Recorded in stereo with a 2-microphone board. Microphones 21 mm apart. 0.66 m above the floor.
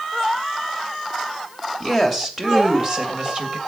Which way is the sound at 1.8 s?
10° right (ahead or behind).